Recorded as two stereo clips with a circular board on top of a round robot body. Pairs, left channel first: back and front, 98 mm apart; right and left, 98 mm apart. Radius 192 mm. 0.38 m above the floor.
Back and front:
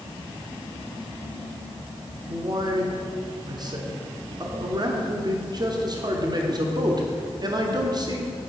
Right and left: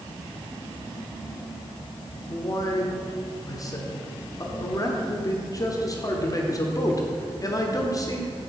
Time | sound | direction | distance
2.3 | a man speaking | 40° right | 1.3 m